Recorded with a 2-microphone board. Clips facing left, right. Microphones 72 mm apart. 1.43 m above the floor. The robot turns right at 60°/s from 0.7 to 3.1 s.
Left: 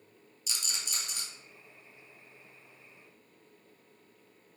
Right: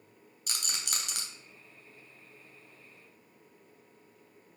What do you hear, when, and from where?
0.5 s a rattle: 50° right (ahead or behind), 1.3 m; by 1.2 s 85° right, 1.3 m